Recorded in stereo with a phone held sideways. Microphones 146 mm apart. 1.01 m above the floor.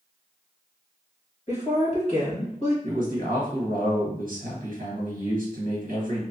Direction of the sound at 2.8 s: 70° right (ahead or behind).